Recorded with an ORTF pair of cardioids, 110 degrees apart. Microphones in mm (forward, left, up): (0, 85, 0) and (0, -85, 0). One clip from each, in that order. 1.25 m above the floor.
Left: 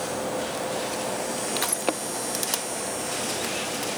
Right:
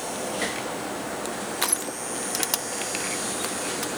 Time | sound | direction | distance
1.6 | crushing | 15° right | 1.0 m